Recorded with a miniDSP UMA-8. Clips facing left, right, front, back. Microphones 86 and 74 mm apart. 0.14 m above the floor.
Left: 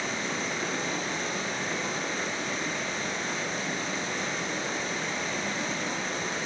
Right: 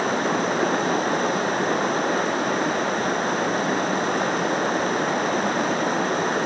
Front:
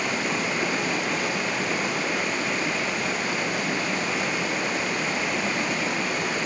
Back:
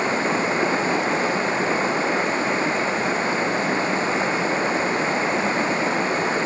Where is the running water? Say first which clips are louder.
Right 10 dB, back 5 dB; 120° right, 1.3 m.